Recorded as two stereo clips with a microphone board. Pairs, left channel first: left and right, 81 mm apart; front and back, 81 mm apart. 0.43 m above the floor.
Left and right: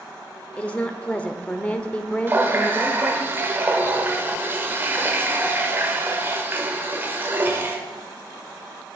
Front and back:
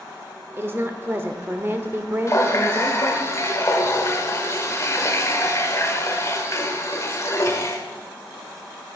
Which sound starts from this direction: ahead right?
A running tap, at 2.3 s.